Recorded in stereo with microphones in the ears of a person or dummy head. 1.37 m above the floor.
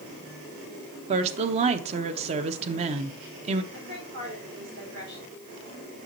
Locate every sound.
1.1 s a woman speaking: 40° right (ahead or behind), 0.9 m
3.7 s a woman speaking: 60° right (ahead or behind), 4.5 m